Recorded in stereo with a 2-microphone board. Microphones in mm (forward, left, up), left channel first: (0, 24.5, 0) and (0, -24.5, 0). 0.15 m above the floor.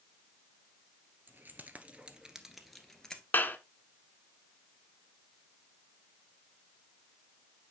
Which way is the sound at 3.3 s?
40° left (ahead or behind).